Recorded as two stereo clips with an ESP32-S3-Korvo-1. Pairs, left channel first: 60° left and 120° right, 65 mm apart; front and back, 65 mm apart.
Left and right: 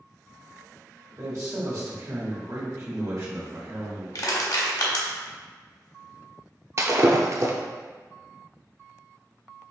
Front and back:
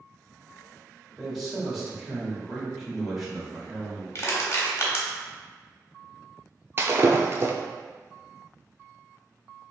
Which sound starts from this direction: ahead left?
Crushing, at 4.2 s.